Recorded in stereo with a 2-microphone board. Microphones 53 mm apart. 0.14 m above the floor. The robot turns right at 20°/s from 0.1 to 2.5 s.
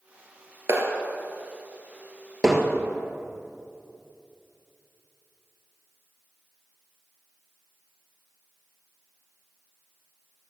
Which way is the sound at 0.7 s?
55° right (ahead or behind).